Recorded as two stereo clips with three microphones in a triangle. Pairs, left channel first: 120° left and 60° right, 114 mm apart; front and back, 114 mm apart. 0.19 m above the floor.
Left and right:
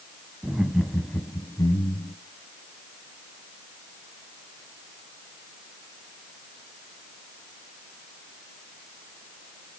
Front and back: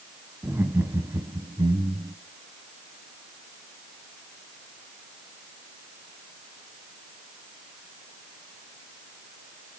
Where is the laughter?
125° right, 1.3 m; by 2.1 s 140° left, 1.7 m.